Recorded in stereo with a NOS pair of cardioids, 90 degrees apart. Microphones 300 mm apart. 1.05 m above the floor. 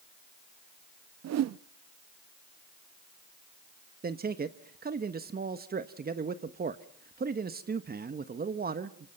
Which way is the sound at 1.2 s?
60° right.